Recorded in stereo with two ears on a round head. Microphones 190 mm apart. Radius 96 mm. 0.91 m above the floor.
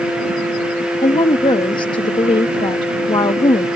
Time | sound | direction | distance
1.0 | a woman speaking | 20° left (ahead or behind) | ?